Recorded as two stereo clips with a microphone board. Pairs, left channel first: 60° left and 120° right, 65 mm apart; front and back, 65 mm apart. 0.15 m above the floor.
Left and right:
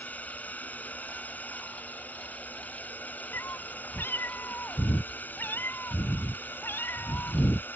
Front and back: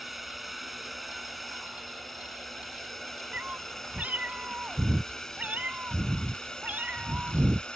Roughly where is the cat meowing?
Behind left.